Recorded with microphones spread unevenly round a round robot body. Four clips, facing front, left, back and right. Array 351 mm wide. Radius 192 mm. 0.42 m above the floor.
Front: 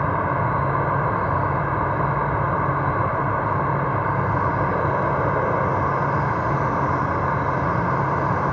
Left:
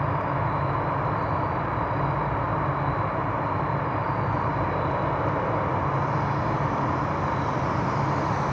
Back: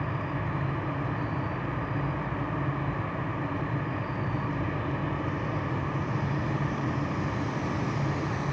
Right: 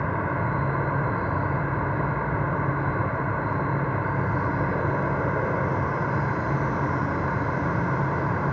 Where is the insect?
40° right.